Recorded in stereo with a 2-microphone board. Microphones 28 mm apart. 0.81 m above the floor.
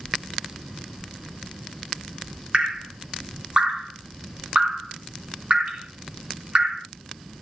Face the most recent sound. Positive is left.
turn(degrees=-45)  # may be behind; listen again after turning